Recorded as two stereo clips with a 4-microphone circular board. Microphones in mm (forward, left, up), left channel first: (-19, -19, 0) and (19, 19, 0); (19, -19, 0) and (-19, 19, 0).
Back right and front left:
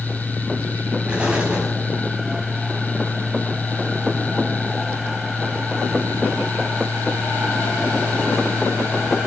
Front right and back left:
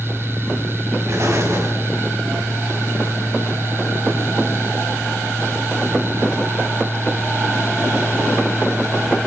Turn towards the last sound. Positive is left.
turn(degrees=110)